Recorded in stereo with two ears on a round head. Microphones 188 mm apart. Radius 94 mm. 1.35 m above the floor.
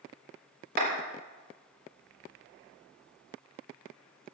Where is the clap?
50° right (ahead or behind), 4 m.